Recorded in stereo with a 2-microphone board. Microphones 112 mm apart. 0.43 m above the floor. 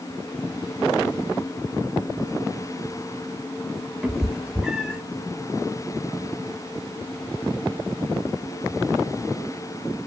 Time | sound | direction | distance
4.0 | a cat meowing | 5° right (ahead or behind) | 0.8 m